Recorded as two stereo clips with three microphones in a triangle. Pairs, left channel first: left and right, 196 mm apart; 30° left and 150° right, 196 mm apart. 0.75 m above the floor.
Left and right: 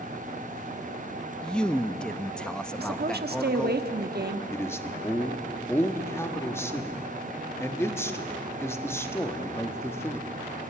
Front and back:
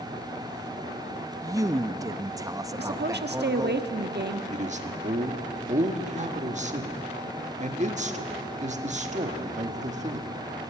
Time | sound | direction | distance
1.4 | a man speaking | 170° left | 0.6 m
2.8 | a woman speaking | 125° right | 1.2 m
4.5 | a man speaking | 165° left | 1.4 m